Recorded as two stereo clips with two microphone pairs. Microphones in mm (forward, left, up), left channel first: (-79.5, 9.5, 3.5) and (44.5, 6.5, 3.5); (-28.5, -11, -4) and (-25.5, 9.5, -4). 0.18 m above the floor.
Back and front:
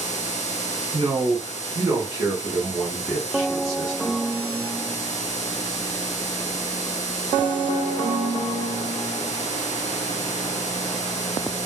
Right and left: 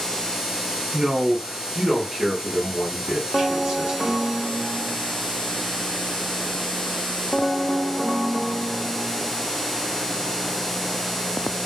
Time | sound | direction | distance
0.9 | a man speaking | 20° left | 1.9 m